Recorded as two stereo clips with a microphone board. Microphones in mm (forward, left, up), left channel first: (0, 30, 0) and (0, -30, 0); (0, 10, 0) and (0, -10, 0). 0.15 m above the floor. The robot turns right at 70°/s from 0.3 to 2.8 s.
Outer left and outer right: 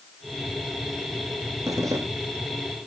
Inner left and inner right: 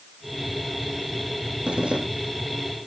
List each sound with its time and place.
1.7 s a zipper: 70° right (ahead or behind), 9 m; by 2.0 s 75° right (ahead or behind), 9 m